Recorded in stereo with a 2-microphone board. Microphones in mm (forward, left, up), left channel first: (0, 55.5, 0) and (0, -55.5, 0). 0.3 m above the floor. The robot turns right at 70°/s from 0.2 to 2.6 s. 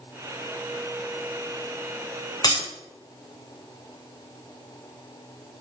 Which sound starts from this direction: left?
Breaking glass, at 2.4 s.